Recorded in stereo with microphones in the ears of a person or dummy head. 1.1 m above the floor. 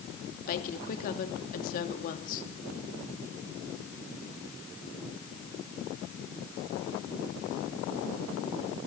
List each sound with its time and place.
0.5 s a woman speaking: 45° left (ahead or behind), 2.5 m